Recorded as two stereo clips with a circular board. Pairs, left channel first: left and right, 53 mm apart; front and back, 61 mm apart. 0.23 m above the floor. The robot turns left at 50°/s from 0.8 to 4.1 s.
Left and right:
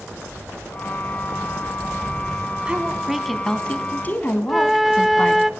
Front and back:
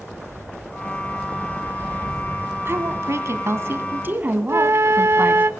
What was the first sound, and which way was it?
A woman speaking, 150° right.